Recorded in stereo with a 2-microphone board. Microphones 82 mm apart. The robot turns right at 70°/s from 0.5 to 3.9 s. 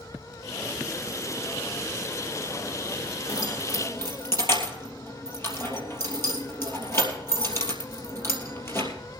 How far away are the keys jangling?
About 3 m.